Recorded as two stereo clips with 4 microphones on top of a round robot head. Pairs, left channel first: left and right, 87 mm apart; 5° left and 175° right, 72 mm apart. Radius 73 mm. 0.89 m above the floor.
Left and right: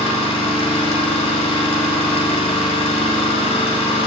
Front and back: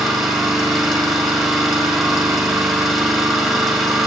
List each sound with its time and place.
0.0 s an engine running: 100° left, 1.8 m